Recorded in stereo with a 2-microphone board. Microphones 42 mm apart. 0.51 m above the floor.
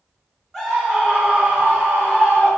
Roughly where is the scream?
Centre.